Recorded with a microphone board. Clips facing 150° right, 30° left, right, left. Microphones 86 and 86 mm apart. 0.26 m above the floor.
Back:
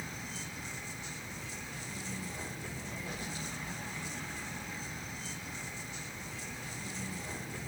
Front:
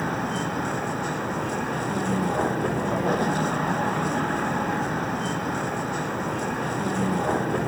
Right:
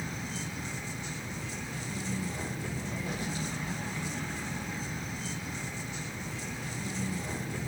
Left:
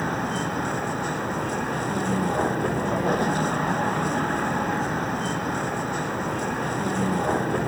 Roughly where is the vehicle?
Ahead left.